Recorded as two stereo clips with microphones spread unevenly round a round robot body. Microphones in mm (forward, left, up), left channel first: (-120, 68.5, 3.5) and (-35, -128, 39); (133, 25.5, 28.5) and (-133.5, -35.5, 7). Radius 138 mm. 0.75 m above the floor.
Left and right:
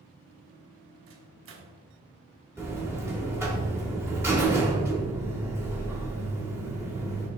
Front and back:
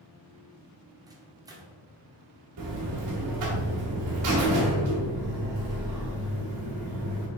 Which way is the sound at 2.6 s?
145° right.